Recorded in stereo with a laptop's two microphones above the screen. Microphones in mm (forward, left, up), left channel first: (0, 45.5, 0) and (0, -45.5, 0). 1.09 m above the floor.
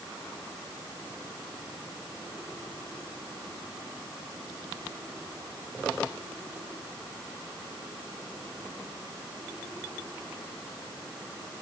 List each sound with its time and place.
Only background noise.